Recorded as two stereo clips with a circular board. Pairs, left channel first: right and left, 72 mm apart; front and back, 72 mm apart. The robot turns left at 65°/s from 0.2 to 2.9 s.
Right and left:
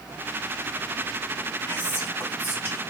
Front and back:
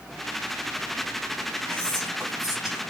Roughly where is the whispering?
Ahead right.